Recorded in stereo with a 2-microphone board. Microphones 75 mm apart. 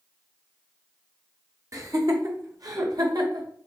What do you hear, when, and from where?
1.7 s laughter: 45° right (ahead or behind), 1.4 m; by 3.5 s 60° right (ahead or behind), 2 m